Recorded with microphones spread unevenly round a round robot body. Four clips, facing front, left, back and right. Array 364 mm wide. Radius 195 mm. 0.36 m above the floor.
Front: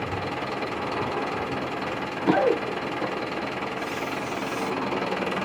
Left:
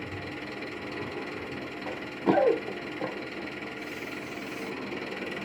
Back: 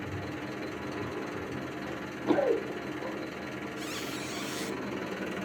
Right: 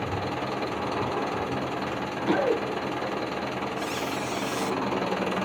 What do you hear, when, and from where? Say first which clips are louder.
0.0 s an engine running: right 8 dB, front 8 dB; 35° right, 1.2 m
1.9 s running footsteps: left 3 dB, front 5 dB; 40° left, 3 m; by 3.5 s 15° left, 4.5 m
3.8 s a squeak: right 8 dB, front 7 dB; 125° right, 1.0 m